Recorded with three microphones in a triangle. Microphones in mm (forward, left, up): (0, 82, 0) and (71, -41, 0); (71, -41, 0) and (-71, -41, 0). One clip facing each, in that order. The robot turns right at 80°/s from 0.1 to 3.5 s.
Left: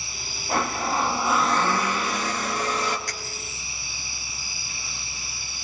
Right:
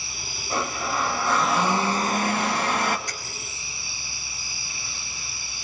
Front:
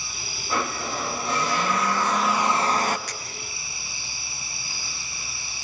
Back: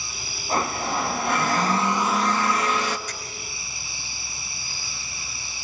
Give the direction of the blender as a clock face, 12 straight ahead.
8 o'clock.